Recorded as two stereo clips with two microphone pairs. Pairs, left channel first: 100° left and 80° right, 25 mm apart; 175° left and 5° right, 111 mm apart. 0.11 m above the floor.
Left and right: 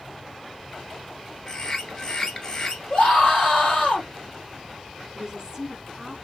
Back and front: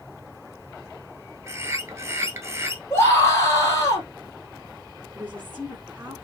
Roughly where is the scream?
Behind left.